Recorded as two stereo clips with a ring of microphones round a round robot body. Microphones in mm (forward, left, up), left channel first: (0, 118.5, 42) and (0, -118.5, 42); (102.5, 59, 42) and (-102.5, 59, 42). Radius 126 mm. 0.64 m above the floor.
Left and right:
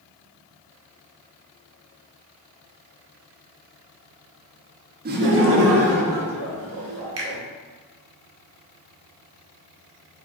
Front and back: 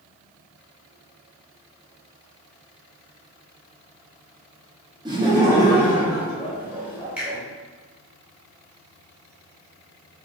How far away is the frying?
No frying in this recording.